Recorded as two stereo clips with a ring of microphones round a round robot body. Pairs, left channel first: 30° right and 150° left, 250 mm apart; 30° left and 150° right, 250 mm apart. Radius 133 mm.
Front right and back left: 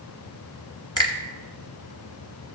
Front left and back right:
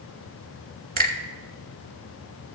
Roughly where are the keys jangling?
I don't hear keys jangling.